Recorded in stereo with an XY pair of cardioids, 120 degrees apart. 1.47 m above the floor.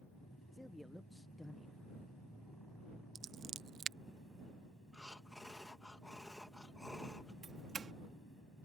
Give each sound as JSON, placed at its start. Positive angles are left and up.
{"t": 0.5, "sound": "a man speaking", "azimuth_deg": 10}
{"t": 3.1, "sound": "scissors", "azimuth_deg": -50}
{"t": 4.9, "sound": "breathing", "azimuth_deg": 10}
{"t": 7.4, "sound": "a doorbell", "azimuth_deg": -35}